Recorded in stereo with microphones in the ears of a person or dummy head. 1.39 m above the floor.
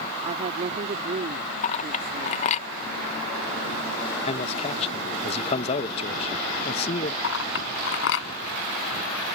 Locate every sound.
0.2 s a woman speaking: 35° right (ahead or behind)
1.6 s a clink: 40° left (ahead or behind)
4.3 s a man speaking: 35° left (ahead or behind)
7.2 s a clink: 80° left